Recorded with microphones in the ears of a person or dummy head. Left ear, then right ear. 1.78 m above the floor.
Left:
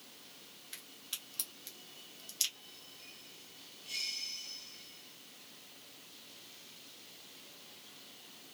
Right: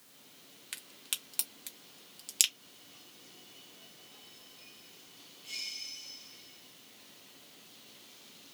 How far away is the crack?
About 0.5 m.